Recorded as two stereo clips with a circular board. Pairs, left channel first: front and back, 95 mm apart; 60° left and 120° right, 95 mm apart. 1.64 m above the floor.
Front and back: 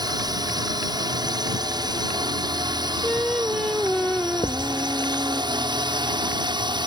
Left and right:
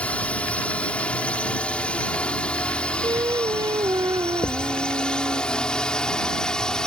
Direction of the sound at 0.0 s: 135° left.